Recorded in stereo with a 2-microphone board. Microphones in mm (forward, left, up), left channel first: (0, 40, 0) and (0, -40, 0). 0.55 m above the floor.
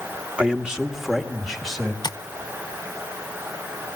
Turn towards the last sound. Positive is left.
turn(degrees=60)  # may be behind; listen again after turning